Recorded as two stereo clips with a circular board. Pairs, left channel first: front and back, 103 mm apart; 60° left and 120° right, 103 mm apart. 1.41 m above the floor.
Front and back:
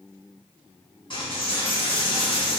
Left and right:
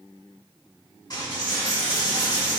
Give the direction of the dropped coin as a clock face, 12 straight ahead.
11 o'clock.